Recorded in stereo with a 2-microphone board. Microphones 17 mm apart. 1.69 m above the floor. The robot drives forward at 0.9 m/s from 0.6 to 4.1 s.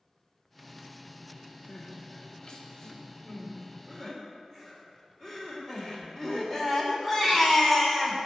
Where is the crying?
55° left (ahead or behind), 1.7 m; by 8.2 s 25° left (ahead or behind), 3 m.